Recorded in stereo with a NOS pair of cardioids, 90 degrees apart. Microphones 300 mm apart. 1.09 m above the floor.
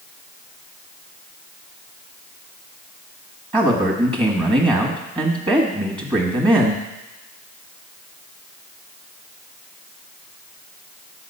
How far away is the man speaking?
About 1.4 m.